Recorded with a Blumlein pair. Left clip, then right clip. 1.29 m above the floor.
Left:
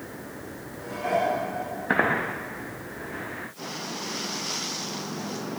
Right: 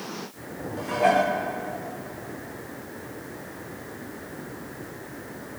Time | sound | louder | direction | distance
0.8 | dishes clattering | right 5 dB | 35° right | 1.2 m